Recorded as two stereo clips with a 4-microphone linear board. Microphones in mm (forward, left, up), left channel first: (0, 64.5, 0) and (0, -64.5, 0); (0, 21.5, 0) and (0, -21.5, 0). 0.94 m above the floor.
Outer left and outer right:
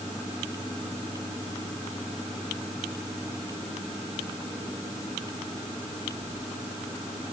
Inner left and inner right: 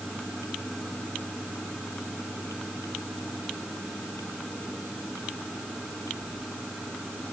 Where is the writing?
I don't hear writing.